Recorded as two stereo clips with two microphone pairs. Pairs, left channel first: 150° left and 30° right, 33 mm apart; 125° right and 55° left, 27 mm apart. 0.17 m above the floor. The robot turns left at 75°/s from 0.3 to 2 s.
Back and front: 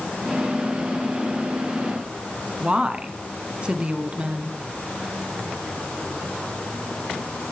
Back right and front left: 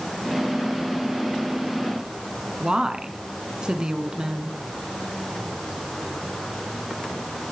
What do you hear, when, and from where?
2.6 s a woman speaking: 15° left, 1.9 m